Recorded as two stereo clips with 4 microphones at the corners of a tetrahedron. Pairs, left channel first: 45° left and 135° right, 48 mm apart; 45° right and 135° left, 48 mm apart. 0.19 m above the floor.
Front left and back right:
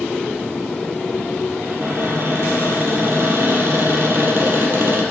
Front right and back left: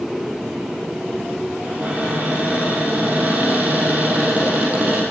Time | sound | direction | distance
1.6 | a cupboard door | 170° right | 4 m